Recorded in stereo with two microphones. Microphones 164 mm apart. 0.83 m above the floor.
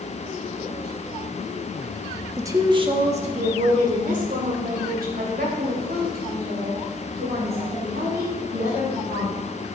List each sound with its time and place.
2.4 s a woman speaking: 15° right (ahead or behind), 1.3 m; by 9.4 s 75° right (ahead or behind), 8 m